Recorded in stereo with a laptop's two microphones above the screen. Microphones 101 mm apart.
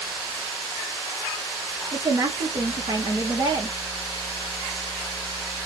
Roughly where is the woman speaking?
Right.